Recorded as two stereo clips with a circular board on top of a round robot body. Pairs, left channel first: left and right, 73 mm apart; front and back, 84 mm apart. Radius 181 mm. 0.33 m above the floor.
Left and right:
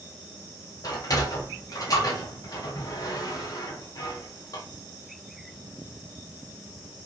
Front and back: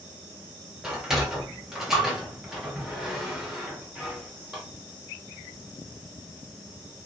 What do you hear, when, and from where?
0.8 s a sliding door: 95° left, 2.0 m